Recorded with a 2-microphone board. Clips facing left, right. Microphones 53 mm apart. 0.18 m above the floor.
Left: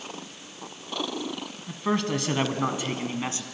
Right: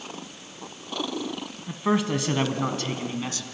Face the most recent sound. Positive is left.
turn(degrees=30)  # may be behind; listen again after turning